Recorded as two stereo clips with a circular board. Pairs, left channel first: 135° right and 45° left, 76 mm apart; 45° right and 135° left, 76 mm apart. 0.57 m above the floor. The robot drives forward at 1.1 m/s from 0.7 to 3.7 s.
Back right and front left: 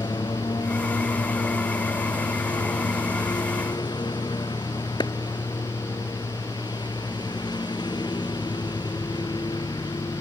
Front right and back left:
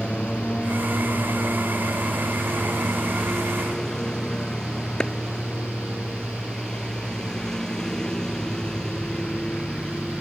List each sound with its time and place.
0.0 s a lawn mower: 125° right; by 10.2 s 130° right
5.0 s a clap: 125° right